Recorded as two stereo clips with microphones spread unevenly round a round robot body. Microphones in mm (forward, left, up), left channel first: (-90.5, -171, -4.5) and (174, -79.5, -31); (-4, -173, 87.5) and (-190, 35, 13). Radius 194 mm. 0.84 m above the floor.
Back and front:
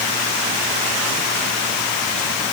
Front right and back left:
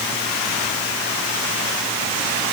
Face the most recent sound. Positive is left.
No sound to turn to.